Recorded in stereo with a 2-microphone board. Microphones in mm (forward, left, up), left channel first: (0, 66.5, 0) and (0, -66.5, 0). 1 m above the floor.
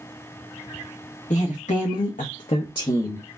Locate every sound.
1.3 s a woman speaking: 65° left (ahead or behind), 1.1 m; by 3.3 s 15° left (ahead or behind), 0.7 m